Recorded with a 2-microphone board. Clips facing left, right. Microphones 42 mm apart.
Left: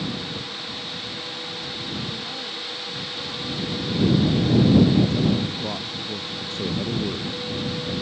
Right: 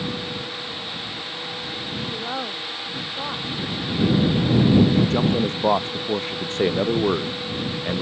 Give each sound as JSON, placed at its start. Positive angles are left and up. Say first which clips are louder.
{"t": 2.1, "sound": "a woman speaking", "louder": "right 4 dB", "side_deg": -50}
{"t": 5.0, "sound": "a man speaking", "louder": "right 1 dB", "side_deg": -55}